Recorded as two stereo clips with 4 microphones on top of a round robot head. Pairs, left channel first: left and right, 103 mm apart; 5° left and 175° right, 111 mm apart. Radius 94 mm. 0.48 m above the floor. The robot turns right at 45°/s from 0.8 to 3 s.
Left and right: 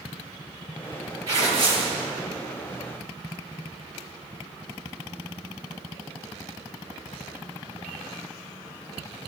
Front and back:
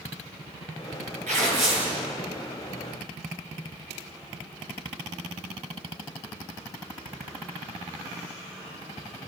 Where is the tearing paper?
155° right, 8.5 m; by 1.9 s 125° right, 8.5 m.